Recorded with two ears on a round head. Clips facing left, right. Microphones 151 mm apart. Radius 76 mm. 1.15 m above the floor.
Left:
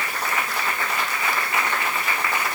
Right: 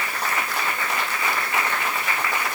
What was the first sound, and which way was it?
Only background noise.